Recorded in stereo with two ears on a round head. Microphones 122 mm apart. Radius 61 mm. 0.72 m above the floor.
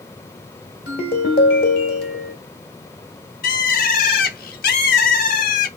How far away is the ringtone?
About 1.6 m.